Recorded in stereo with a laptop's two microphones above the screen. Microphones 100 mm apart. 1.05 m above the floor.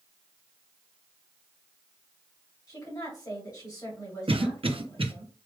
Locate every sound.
2.7 s a woman speaking: 40° left (ahead or behind), 2.5 m
4.3 s a cough: 65° right (ahead or behind), 0.9 m